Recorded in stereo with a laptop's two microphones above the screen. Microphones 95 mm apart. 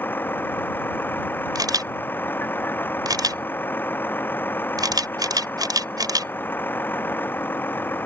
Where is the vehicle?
20° left (ahead or behind).